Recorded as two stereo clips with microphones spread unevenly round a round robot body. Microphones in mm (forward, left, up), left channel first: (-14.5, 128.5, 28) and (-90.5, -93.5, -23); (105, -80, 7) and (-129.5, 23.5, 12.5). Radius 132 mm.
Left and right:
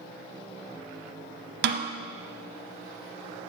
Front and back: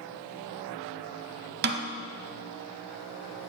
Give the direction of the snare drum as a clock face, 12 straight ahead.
5 o'clock.